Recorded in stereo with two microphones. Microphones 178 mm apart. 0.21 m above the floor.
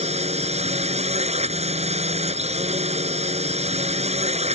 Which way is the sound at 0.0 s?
35° right (ahead or behind).